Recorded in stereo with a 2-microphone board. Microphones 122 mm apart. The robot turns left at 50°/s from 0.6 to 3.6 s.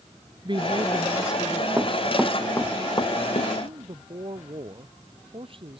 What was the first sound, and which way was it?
A woman speaking, 140° right.